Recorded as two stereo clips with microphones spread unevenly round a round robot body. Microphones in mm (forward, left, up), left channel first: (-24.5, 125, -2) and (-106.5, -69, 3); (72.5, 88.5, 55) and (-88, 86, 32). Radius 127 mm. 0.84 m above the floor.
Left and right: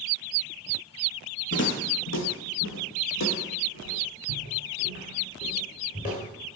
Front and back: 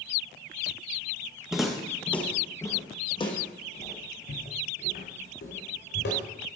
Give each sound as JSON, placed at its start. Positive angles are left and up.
{"t": 1.5, "sound": "footsteps", "azimuth_deg": 90, "distance_m": 1.8}